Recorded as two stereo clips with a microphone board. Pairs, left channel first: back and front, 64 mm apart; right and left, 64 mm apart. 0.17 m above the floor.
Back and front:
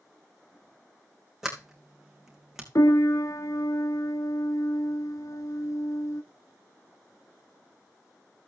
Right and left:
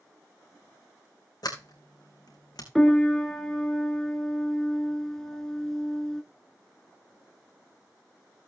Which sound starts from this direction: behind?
A piano, at 2.8 s.